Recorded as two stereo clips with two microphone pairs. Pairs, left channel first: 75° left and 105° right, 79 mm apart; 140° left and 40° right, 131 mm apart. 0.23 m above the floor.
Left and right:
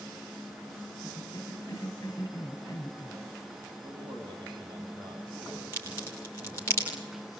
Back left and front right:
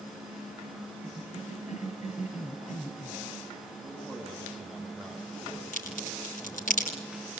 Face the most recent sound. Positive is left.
turn(degrees=135)